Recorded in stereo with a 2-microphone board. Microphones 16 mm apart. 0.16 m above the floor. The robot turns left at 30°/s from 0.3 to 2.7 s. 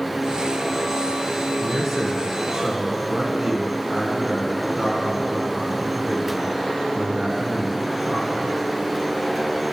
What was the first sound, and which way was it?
A man speaking, 30° right.